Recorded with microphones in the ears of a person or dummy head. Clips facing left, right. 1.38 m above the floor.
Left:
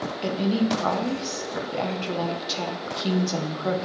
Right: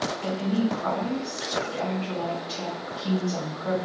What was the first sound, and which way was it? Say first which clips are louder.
A woman speaking: left 3 dB; 60° left (ahead or behind).